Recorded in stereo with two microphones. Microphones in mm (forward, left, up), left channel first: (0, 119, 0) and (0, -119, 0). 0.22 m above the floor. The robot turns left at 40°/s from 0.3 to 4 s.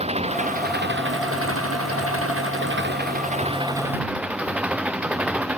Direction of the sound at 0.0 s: 25° right.